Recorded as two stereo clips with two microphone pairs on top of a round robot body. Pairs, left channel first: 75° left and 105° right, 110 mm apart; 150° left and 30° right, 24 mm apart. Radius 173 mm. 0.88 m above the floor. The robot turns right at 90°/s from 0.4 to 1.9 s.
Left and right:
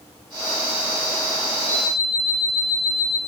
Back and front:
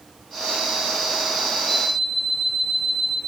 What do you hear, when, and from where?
1.7 s an alarm clock: 105° left, 3.5 m; by 3.2 s 125° left, 3.5 m